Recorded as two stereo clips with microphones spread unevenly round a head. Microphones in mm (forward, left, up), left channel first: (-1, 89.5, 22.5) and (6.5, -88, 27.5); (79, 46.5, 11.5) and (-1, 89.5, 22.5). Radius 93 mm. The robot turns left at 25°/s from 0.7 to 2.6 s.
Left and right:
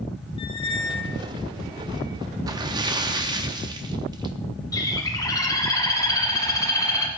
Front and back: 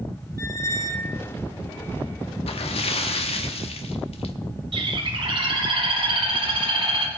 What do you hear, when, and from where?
0.4 s a squeak: 30° left, 1.2 m; by 1.2 s 15° left, 1.2 m
2.5 s a splash: 15° right, 0.9 m; by 4.3 s 20° right, 0.9 m
4.7 s a bird: 165° left, 1.5 m